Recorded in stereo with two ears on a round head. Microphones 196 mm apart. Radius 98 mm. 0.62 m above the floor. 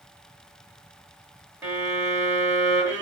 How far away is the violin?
About 0.8 m.